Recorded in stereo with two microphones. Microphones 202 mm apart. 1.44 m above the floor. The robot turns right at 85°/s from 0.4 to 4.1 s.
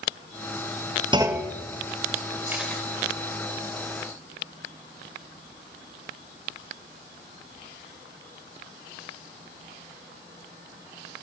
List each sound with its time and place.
1.1 s a clunk: 25° right, 1.6 m; by 1.5 s 10° left, 1.6 m
2.5 s a camera shutter: 15° right (ahead or behind), 4.5 m; by 2.8 s 15° left (ahead or behind), 4.5 m